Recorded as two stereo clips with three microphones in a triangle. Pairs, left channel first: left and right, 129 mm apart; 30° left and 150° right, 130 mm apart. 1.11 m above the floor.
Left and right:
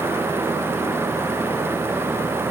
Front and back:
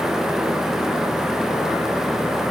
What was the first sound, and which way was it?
Only background noise.